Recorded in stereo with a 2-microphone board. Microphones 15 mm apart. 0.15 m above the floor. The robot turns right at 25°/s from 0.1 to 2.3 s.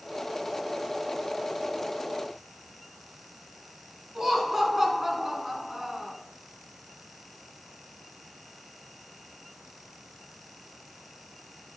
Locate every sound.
4.2 s laughter: 30° right (ahead or behind), 1.1 m